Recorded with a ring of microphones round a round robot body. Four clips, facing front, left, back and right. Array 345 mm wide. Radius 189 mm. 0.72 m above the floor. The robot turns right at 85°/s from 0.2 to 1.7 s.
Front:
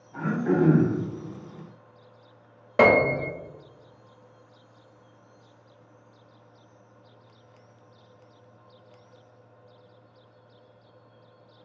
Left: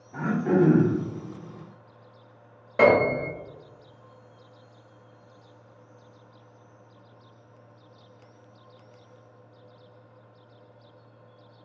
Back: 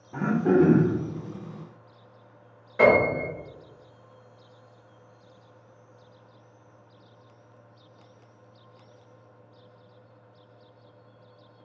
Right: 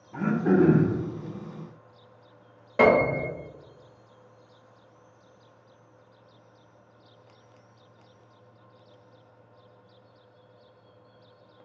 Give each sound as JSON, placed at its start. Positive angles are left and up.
{"t": 0.1, "sound": "throat clearing", "azimuth_deg": -170, "distance_m": 0.7}
{"t": 2.8, "sound": "a piano", "azimuth_deg": 0, "distance_m": 1.0}